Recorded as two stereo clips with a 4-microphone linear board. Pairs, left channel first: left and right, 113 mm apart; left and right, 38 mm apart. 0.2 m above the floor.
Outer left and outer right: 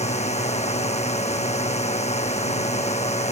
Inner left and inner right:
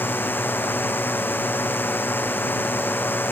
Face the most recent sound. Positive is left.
turn(degrees=75)  # may be behind; listen again after turning